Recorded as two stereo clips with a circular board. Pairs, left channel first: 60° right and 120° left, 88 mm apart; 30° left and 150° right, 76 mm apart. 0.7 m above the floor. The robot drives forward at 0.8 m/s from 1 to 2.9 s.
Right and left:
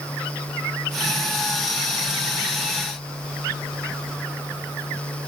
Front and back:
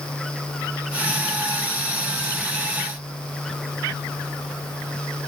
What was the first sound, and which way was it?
Only background noise.